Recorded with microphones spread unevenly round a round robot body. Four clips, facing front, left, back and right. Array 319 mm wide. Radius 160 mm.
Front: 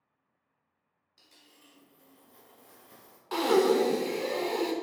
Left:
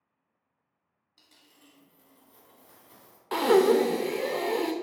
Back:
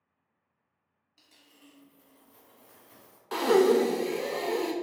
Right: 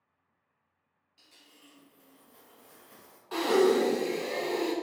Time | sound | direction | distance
1.2 | a dropped coin | 75° left | 1.8 m
3.3 | breathing | 95° left | 0.5 m